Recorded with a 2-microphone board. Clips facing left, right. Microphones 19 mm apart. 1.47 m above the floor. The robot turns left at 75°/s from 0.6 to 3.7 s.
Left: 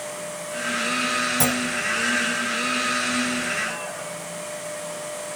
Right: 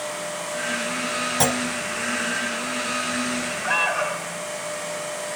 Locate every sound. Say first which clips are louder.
1.4 s a clunk: right 1 dB; 35° right (ahead or behind); by 1.6 s 15° right (ahead or behind)
3.6 s an alarm: right 9 dB; 60° right (ahead or behind); by 4.4 s 65° right (ahead or behind)